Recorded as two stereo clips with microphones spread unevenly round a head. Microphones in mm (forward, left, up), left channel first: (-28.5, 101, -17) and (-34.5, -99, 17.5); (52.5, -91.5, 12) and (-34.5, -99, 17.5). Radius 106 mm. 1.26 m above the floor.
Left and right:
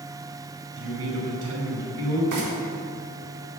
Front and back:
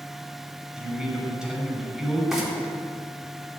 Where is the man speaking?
95° right, 6 m.